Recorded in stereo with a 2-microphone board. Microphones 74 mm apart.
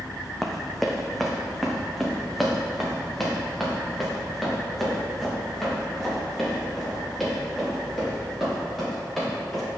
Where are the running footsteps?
Centre (ahead or behind), 1.3 m.